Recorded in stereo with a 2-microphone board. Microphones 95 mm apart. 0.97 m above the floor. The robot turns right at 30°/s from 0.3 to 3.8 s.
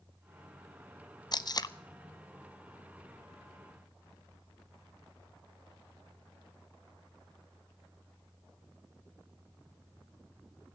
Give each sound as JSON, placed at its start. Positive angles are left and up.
{"t": 1.3, "sound": "tape being pulled", "side_deg": 45, "distance_m": 0.6}